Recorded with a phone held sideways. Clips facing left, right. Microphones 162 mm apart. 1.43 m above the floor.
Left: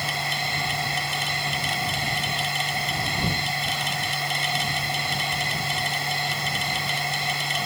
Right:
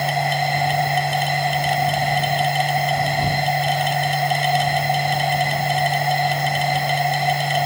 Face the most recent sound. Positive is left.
turn(degrees=-60)  # may be behind; listen again after turning